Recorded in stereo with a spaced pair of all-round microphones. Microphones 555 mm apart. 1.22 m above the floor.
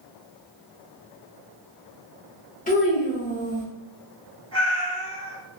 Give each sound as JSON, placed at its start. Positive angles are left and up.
{"t": 2.7, "sound": "a child speaking", "side_deg": 15, "distance_m": 1.0}
{"t": 4.5, "sound": "a cat meowing", "side_deg": 10, "distance_m": 1.8}